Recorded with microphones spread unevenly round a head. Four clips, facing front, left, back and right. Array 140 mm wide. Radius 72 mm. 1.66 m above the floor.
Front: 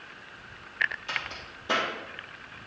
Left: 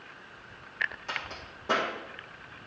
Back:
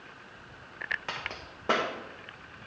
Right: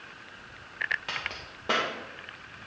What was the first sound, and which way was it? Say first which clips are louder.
A crack: even, front 2 dB; 165° right.